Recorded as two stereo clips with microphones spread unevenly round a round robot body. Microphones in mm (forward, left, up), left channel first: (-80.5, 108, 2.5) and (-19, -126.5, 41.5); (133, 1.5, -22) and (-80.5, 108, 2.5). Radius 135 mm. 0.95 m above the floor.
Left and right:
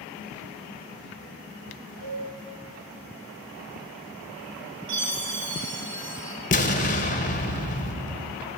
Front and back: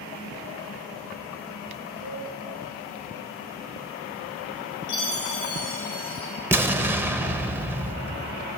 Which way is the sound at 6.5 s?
70° left.